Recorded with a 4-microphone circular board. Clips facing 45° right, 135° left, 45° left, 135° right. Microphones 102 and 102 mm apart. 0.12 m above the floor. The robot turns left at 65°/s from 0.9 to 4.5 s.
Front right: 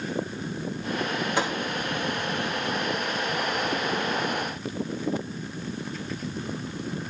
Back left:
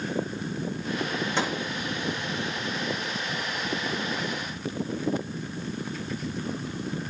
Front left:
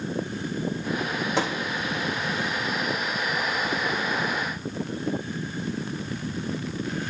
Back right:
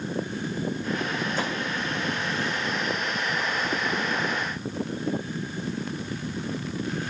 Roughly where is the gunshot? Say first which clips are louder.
Front right 1 dB, front left 7 dB; ahead left.